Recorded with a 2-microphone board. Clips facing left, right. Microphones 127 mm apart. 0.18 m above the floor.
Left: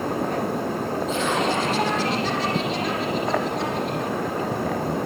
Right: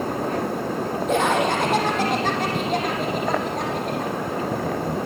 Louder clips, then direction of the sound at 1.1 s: Right 4 dB; 55° right (ahead or behind).